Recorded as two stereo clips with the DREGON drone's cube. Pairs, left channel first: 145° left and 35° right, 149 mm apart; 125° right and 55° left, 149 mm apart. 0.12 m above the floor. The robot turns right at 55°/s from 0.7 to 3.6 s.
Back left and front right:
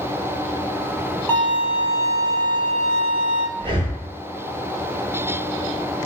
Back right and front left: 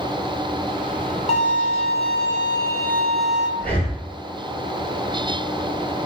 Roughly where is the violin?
Behind right.